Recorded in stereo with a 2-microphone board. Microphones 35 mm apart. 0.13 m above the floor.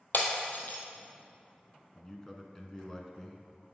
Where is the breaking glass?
60° left (ahead or behind), 1.6 m.